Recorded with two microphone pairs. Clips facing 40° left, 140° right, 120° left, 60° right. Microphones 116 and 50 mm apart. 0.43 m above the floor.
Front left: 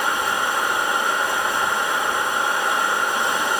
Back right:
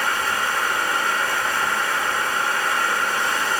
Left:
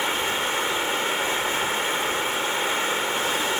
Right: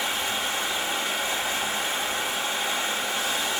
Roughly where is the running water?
Left.